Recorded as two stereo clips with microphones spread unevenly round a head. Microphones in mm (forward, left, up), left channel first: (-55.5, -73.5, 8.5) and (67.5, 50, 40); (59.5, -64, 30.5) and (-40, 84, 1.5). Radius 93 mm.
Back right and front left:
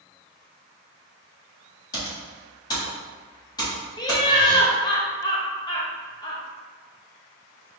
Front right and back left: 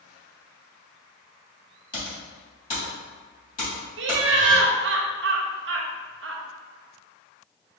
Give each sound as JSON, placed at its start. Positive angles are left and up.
{"t": 1.9, "sound": "typing on a keyboard", "azimuth_deg": -65, "distance_m": 1.7}
{"t": 4.0, "sound": "laughter", "azimuth_deg": 150, "distance_m": 0.6}